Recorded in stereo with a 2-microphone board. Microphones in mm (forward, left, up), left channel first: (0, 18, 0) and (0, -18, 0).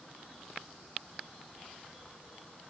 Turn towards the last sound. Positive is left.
No sound to turn to.